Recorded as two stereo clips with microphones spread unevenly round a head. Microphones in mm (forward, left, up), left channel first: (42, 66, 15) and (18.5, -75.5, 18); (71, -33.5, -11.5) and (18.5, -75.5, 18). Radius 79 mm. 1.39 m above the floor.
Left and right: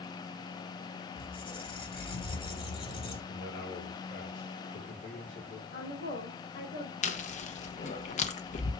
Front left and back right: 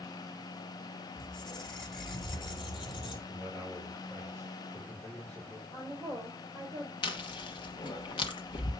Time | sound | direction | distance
1.2 | a squeak | 30° left | 2.5 m
3.3 | a man speaking | 115° left | 1.9 m
5.7 | a woman speaking | 105° left | 3.5 m
7.0 | chewing | 40° left | 1.0 m